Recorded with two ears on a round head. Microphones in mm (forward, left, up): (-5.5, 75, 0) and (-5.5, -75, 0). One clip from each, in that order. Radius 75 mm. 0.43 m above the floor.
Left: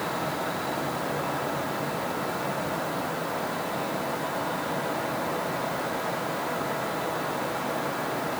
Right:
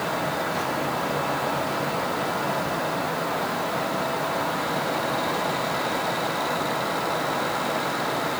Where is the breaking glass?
I don't hear breaking glass.